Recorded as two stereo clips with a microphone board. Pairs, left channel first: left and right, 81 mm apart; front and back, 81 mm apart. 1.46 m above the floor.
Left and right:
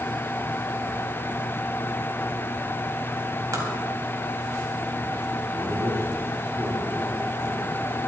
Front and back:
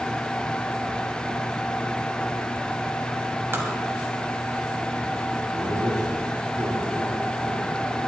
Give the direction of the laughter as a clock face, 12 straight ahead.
5 o'clock.